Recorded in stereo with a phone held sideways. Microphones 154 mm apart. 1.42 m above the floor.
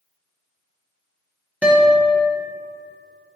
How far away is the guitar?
About 1.0 m.